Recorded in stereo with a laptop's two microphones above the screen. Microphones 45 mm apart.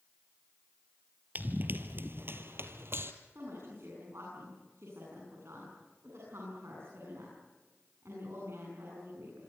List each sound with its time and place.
1.4 s running footsteps: 40° right (ahead or behind), 1.6 m; by 3.1 s 65° right (ahead or behind), 2 m
3.4 s a woman speaking: 80° right, 9 m